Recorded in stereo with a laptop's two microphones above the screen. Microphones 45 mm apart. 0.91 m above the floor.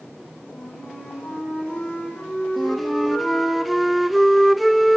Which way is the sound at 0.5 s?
45° left (ahead or behind).